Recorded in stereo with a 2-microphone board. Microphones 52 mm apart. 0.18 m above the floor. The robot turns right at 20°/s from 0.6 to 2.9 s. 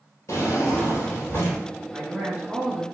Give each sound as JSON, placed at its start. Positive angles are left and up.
{"t": 0.3, "sound": "a drawer", "side_deg": 60, "distance_m": 1.3}
{"t": 1.9, "sound": "a man speaking", "side_deg": -25, "distance_m": 1.1}